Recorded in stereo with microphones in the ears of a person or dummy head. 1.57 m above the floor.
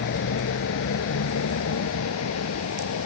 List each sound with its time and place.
0.0 s a vehicle: 60° left (ahead or behind); by 3.1 s 85° left